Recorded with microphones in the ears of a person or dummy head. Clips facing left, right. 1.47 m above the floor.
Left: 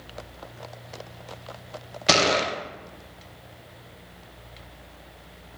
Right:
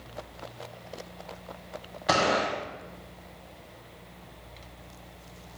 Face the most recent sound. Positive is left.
turn(degrees=35)  # may be behind; listen again after turning